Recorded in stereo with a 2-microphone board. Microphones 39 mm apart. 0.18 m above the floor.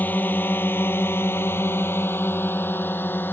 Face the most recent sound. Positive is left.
turn(degrees=55)  # may be behind; listen again after turning